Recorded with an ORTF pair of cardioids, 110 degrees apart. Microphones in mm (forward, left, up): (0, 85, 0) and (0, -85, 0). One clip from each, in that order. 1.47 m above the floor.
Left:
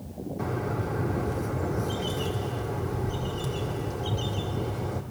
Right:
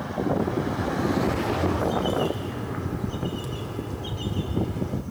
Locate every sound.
0.4 s a bird: straight ahead, 3 m